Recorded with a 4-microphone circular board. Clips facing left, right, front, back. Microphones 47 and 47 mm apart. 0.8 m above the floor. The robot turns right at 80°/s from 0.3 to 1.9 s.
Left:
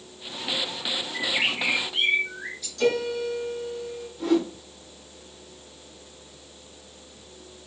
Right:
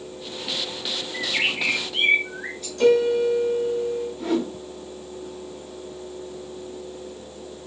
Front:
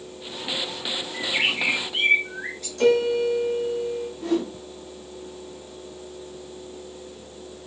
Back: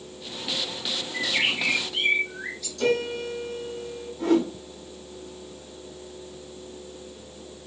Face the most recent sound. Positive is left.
turn(degrees=-170)